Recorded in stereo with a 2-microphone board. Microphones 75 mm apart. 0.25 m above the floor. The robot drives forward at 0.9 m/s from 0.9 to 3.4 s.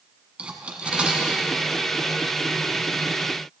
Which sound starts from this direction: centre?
Cutlery clinking, at 0.4 s.